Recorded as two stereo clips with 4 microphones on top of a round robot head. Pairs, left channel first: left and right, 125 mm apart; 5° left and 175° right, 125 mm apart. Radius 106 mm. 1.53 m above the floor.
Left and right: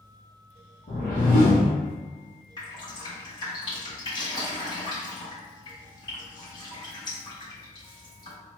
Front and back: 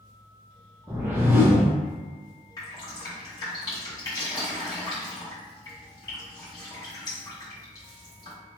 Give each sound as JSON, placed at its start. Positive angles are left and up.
{"t": 0.9, "sound": "a whoosh", "azimuth_deg": 115, "distance_m": 1.0}
{"t": 2.6, "sound": "dripping", "azimuth_deg": 50, "distance_m": 1.9}